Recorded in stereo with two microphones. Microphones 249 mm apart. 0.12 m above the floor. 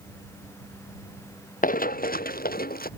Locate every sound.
1.6 s running footsteps: 35° left (ahead or behind)